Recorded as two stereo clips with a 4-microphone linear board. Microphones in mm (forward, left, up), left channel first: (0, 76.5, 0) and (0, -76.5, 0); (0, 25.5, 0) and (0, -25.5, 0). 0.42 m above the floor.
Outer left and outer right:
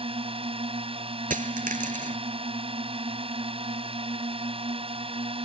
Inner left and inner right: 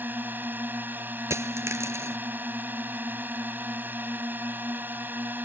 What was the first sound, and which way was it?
A drone, 40° right (ahead or behind).